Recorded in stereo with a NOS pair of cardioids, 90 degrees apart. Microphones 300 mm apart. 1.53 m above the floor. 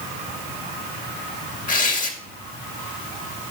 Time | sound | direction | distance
1.7 | tearing paper | 25° left | 2.5 m